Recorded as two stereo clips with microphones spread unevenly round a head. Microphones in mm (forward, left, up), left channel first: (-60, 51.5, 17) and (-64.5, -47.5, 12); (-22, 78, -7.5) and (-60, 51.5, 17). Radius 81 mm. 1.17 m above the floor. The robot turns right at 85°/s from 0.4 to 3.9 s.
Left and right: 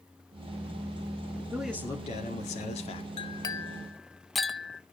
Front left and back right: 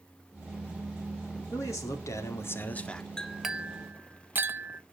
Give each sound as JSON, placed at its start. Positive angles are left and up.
{"t": 1.5, "sound": "a man speaking", "azimuth_deg": -15, "distance_m": 2.5}
{"t": 3.2, "sound": "a clink", "azimuth_deg": 115, "distance_m": 1.1}